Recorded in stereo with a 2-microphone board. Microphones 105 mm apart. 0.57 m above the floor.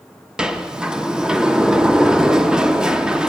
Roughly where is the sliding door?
Centre.